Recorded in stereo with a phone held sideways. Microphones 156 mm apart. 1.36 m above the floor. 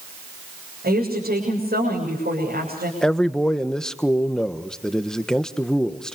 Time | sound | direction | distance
0.8 | a woman speaking | 85° right | 7 m
3.0 | a man speaking | 5° left (ahead or behind) | 1.3 m